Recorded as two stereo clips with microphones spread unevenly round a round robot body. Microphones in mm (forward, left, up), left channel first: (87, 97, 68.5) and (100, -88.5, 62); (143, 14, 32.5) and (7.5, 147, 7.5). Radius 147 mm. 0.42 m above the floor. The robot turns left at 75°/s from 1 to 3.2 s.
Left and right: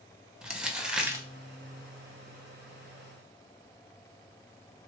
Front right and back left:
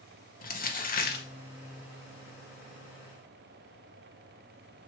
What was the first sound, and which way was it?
Crumpling, straight ahead.